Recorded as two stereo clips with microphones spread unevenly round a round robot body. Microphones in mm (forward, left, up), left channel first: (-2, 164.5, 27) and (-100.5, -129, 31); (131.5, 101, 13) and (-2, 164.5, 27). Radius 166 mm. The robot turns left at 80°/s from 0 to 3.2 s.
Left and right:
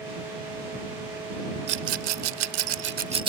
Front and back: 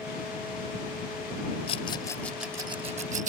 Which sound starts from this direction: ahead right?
A rattle, at 1.7 s.